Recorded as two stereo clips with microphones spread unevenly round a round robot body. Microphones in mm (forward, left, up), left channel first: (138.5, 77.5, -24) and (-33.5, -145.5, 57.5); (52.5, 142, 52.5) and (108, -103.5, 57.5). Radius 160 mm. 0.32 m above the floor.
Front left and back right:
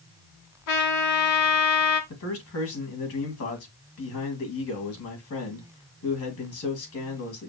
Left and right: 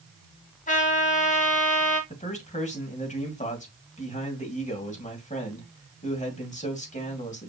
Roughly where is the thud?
No thud in this recording.